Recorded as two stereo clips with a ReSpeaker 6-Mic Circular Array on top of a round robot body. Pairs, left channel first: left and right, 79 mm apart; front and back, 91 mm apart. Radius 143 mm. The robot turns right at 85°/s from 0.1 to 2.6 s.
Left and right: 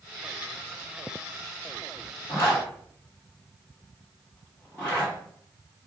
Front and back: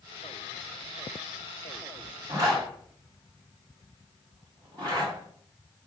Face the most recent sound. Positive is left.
turn(degrees=160)